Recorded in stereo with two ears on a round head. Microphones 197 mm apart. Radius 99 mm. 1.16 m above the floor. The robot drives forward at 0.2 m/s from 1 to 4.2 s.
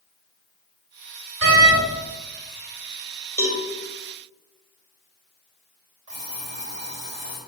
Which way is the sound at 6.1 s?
55° right (ahead or behind).